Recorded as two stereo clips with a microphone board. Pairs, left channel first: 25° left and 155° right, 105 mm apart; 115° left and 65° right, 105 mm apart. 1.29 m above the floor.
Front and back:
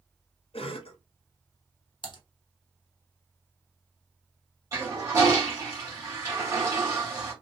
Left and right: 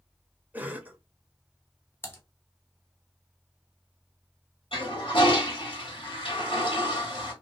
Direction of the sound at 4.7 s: 145° left.